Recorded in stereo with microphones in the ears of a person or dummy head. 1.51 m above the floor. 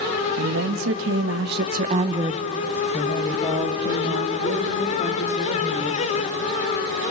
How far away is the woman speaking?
About 2 m.